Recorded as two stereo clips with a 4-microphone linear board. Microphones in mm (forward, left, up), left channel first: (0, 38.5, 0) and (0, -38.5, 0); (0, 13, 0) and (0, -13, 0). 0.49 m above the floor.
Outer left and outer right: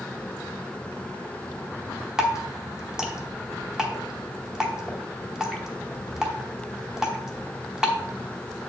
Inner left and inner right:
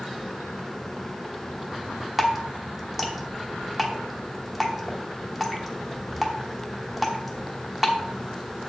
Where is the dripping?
10° right (ahead or behind), 0.9 m.